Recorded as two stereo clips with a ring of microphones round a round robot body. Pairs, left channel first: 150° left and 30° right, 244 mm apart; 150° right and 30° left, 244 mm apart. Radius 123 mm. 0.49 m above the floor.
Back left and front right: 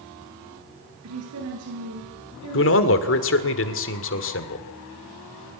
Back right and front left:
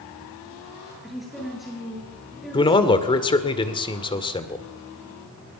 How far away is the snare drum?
No snare drum in this recording.